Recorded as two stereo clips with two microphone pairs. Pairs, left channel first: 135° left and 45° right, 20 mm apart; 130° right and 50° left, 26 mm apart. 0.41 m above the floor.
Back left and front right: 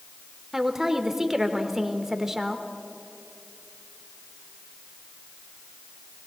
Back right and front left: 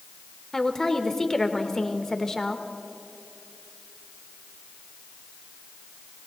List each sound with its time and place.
0.5 s a woman speaking: 85° right, 0.8 m